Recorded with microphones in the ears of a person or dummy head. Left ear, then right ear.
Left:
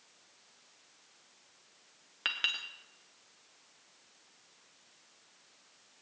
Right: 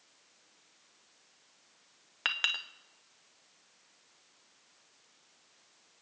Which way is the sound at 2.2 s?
20° right (ahead or behind).